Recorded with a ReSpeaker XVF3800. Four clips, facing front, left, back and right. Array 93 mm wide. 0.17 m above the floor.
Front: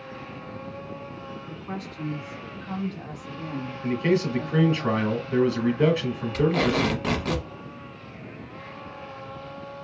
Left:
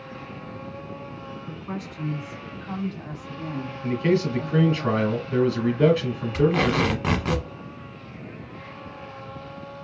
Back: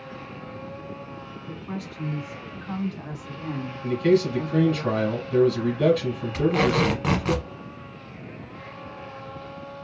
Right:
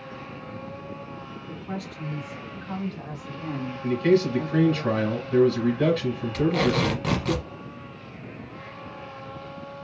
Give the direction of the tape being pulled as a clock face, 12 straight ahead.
8 o'clock.